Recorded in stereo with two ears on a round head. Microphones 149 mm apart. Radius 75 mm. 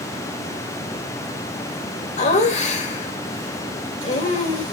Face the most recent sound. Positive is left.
turn(degrees=45)  # may be behind; listen again after turning